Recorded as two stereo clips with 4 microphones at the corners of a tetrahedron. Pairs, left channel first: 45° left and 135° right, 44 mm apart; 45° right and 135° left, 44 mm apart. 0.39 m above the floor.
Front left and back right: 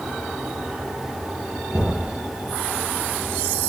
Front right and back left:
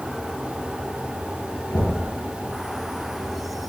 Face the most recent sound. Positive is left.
turn(degrees=-65)